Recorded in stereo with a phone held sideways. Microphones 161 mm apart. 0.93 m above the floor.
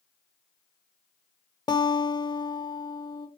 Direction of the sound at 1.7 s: 25° left (ahead or behind).